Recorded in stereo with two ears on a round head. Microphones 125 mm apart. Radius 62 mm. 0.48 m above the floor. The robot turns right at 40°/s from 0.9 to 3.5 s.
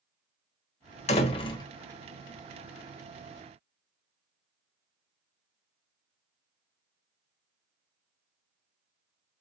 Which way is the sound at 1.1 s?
50° left (ahead or behind).